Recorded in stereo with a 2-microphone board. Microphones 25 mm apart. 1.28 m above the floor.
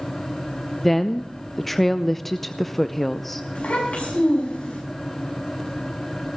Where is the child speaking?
70° left (ahead or behind), 7 m.